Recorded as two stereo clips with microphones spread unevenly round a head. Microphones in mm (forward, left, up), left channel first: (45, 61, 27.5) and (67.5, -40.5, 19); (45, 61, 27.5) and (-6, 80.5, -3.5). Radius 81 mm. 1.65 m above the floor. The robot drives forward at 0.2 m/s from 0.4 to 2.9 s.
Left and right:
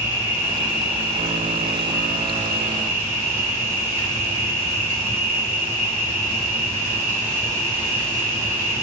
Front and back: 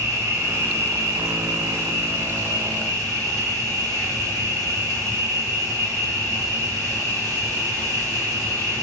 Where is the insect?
125° left, 1.9 m; by 8.8 s 135° left, 2 m.